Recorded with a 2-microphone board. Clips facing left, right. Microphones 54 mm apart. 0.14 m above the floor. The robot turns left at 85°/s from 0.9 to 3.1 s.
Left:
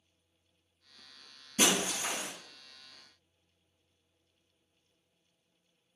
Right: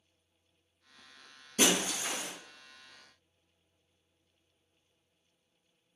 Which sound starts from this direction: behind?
Breaking glass, at 1.6 s.